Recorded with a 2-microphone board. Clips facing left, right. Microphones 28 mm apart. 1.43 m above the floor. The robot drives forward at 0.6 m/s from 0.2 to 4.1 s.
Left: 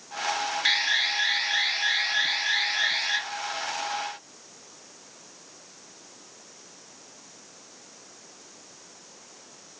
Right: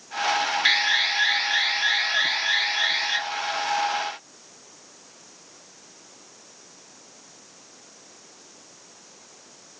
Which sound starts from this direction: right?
An alarm, at 0.7 s.